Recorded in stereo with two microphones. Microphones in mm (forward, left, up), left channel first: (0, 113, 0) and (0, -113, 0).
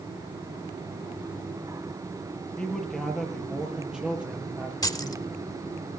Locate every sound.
2.6 s a man speaking: 5° left (ahead or behind), 6 m; by 5.4 s 10° right (ahead or behind), 8.5 m
4.8 s keys jangling: 15° left (ahead or behind), 0.9 m